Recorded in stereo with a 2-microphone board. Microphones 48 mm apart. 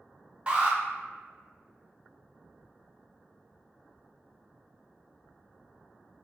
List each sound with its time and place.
0.5 s an alarm: 20° right (ahead or behind), 0.7 m